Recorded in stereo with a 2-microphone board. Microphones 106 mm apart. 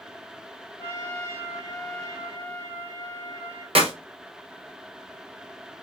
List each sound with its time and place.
0.8 s a trumpet: 25° left (ahead or behind), 1.6 m
3.8 s a clap: 65° right (ahead or behind), 1.0 m